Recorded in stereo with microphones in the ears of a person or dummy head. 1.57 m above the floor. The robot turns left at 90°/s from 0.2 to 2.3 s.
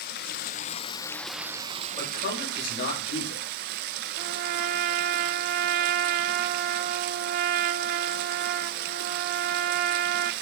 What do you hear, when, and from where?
0.0 s running water: 100° left, 0.9 m; by 10.4 s 85° right, 0.9 m
2.0 s a man speaking: 150° left, 7.5 m; by 3.5 s 120° left, 7.5 m
4.2 s a trumpet: 40° right (ahead or behind), 0.6 m